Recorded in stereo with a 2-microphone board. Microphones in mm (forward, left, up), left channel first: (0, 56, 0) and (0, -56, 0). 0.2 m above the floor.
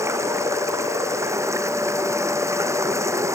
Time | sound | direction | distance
0.0 | running water | 25° right (ahead or behind) | ?